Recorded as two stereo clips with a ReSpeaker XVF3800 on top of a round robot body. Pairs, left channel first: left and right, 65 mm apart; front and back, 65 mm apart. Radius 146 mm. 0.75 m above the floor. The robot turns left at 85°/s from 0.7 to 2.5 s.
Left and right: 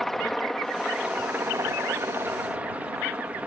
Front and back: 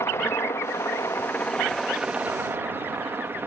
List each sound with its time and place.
0.0 s a helicopter: 5° left; by 3.5 s 145° right